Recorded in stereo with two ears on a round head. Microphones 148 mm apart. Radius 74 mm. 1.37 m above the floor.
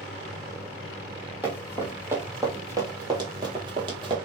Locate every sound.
1.4 s running footsteps: 10° right (ahead or behind), 1.8 m; by 4.2 s 30° right (ahead or behind), 1.6 m